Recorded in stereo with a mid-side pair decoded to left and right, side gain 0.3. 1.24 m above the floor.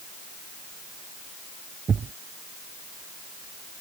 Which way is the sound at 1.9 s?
60° right.